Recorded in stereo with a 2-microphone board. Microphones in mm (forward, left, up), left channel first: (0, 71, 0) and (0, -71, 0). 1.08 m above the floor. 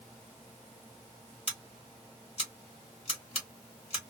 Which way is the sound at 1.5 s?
50° left (ahead or behind).